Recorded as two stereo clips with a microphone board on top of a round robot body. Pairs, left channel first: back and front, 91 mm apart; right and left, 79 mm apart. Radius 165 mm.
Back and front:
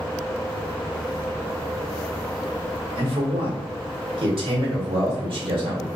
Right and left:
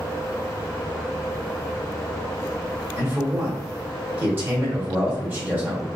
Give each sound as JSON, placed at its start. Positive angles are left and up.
{"t": 3.0, "sound": "a man speaking", "azimuth_deg": 25, "distance_m": 1.2}